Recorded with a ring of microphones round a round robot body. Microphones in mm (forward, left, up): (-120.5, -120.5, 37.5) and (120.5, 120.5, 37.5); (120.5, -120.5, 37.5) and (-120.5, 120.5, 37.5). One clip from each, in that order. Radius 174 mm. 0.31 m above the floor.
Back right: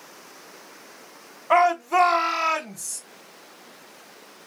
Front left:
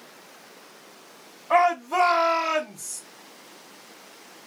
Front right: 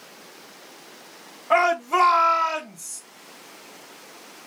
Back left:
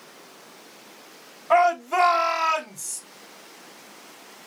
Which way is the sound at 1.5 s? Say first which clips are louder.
Back right 2 dB, even; 155° right.